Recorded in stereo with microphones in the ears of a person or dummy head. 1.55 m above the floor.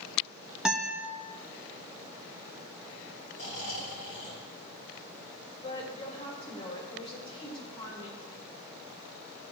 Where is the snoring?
75° left (ahead or behind), 3 m.